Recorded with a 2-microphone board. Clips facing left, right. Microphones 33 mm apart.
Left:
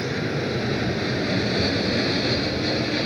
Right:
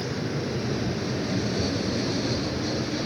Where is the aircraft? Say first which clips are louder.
Left 4 dB; 60° left (ahead or behind).